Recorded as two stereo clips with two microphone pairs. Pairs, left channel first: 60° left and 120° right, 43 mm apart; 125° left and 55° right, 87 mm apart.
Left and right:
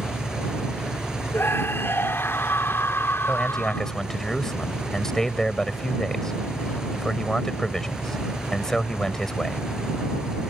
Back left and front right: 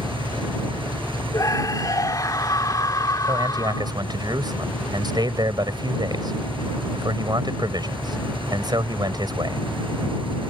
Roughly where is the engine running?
Ahead right.